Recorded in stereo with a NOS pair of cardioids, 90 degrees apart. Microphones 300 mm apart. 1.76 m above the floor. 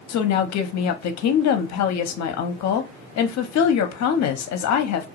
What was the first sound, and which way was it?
A woman speaking, 65° left.